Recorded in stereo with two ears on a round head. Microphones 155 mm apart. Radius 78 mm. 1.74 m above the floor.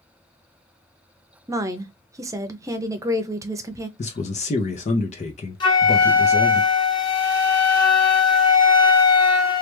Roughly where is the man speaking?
Left.